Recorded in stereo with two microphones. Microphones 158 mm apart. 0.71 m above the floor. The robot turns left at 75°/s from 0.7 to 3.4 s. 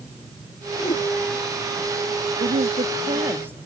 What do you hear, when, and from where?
0.8 s a whoosh: 25° left (ahead or behind); by 1.0 s 40° left (ahead or behind)
2.4 s a woman speaking: 95° right; by 3.6 s 170° right